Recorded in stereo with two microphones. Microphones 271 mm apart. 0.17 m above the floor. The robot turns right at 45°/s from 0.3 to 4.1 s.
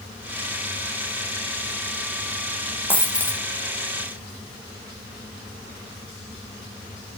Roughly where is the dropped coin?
Centre.